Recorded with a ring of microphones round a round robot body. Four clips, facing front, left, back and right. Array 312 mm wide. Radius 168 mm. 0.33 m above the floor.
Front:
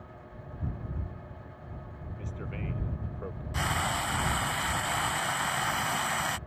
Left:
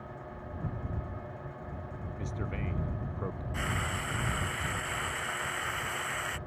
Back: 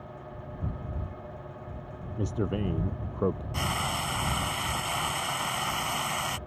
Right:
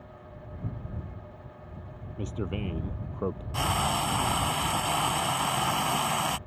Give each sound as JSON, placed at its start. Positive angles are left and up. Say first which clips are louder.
{"t": 2.2, "sound": "a man speaking", "louder": "right 6 dB, back 11 dB", "azimuth_deg": -160}
{"t": 3.5, "sound": "frying", "louder": "right 9 dB, even", "azimuth_deg": -85}